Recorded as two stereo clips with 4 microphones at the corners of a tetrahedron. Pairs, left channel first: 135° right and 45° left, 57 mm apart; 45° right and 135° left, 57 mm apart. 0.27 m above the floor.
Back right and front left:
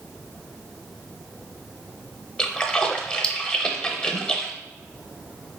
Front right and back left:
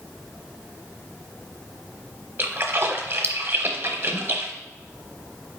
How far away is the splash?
About 0.7 m.